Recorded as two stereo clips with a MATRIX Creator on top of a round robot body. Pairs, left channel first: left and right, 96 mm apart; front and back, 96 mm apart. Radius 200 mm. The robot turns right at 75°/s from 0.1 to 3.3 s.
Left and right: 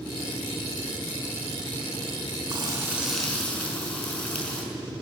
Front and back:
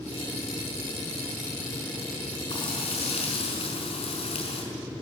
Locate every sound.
2.5 s frying: 45° right, 5 m; by 4.6 s 15° left, 5 m